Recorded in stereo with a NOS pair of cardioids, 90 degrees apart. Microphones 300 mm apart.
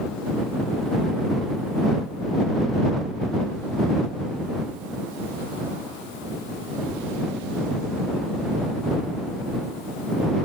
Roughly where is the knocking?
No knocking in this recording.